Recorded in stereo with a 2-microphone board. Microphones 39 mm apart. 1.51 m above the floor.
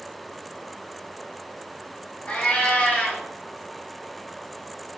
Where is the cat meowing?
40° left (ahead or behind), 1.6 m.